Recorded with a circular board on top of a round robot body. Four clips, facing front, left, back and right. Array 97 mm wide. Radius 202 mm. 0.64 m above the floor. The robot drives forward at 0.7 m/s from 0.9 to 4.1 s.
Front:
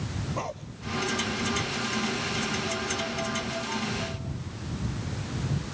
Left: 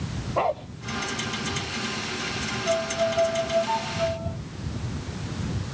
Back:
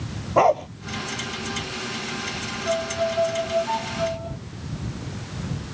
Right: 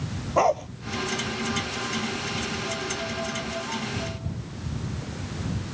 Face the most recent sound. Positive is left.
turn(degrees=140)